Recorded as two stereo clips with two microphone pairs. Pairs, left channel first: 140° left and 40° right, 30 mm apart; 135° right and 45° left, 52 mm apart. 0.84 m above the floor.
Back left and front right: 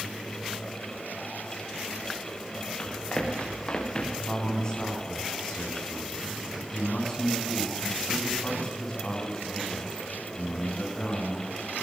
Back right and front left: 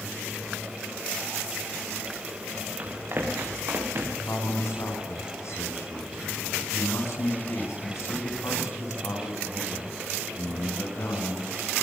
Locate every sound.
2.8 s running footsteps: 90° left, 6.5 m; by 4.2 s 85° left, 6.5 m
4.3 s a man speaking: 150° right, 5.5 m